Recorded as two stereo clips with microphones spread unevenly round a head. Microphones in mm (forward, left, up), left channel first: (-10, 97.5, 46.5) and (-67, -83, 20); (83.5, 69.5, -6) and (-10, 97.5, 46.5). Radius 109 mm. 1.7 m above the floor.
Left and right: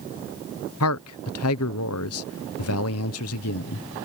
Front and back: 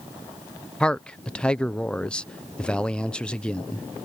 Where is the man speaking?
65° left.